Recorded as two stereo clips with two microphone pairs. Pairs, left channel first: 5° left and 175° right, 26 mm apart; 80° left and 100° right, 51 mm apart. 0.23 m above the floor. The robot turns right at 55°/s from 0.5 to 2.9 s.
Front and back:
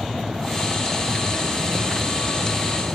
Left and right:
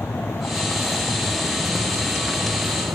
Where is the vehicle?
115° left; by 3.0 s 110° right.